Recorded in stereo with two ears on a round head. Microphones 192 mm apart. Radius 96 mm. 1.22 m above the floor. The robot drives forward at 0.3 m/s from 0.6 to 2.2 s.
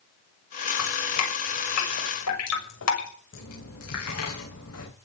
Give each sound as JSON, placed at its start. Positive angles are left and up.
{"t": 0.8, "sound": "dripping", "side_deg": 80, "distance_m": 6.0}
{"t": 3.3, "sound": "a dropped coin", "side_deg": 80, "distance_m": 8.5}